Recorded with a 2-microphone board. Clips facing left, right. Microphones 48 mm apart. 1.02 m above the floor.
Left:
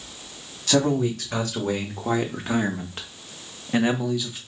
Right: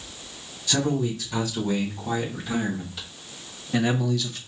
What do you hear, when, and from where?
0.7 s a man speaking: 80° left, 2 m; by 4.4 s 10° left (ahead or behind), 0.9 m